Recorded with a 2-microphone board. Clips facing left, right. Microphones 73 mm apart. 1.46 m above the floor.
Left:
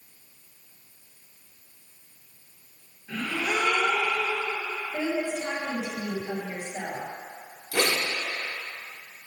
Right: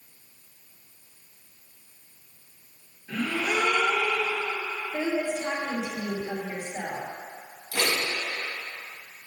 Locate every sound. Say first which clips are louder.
3.1 s a gasp: right 1 dB; centre (ahead or behind), 2.5 m
4.9 s a woman speaking: right 1 dB; 10° right (ahead or behind), 2.5 m
7.7 s a zipper: left 2 dB; 70° left (ahead or behind), 2 m